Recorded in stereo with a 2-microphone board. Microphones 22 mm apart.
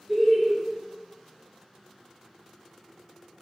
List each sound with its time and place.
0.1 s laughter: 10° right (ahead or behind), 0.7 m